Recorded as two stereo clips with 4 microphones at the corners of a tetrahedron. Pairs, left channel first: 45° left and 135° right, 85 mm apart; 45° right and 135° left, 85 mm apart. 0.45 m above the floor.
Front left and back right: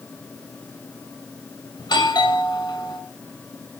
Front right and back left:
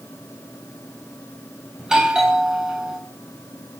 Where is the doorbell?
55° left, 3.5 m.